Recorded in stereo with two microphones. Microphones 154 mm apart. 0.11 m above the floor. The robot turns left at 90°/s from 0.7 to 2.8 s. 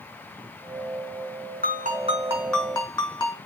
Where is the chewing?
I don't hear chewing.